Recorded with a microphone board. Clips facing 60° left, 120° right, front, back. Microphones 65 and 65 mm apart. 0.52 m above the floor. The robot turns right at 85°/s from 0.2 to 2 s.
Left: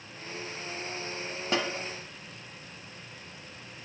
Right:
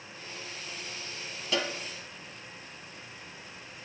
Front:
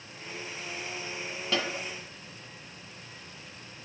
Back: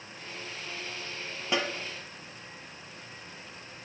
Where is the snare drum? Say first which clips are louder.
Left 1 dB, back 1 dB; 110° left, 0.8 m; by 1.7 s 125° left, 0.8 m.